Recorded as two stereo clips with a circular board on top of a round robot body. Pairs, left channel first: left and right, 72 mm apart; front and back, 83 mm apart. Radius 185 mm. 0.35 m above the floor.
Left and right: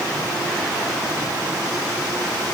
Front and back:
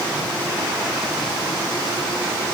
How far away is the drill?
No drill in this recording.